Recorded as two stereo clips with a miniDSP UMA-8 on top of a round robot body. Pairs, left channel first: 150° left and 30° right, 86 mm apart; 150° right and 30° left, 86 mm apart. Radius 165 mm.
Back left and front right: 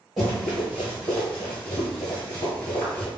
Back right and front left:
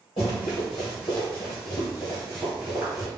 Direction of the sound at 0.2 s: 120° right.